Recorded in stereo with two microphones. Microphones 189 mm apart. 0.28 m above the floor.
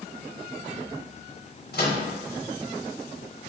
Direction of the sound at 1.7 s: 65° left (ahead or behind).